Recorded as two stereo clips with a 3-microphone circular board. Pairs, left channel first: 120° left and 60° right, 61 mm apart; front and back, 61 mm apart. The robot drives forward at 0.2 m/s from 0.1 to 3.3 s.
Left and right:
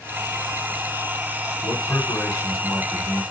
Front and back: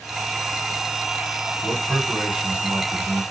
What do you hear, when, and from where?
1.6 s a man speaking: 110° left, 2 m; by 3.2 s 120° left, 2 m